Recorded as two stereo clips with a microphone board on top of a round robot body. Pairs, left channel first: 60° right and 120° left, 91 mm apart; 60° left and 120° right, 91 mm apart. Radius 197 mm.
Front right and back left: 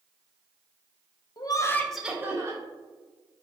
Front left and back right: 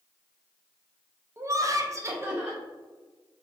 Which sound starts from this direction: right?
Laughter, at 1.4 s.